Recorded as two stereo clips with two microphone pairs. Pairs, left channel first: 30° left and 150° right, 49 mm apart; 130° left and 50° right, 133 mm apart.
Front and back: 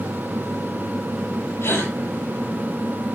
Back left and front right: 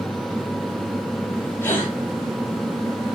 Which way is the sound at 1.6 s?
55° left.